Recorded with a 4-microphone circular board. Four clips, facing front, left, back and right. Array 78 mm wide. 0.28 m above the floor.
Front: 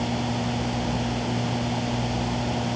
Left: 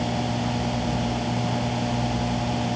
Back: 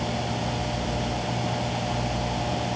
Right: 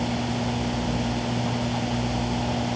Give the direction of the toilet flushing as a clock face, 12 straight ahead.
I don't hear a toilet flushing.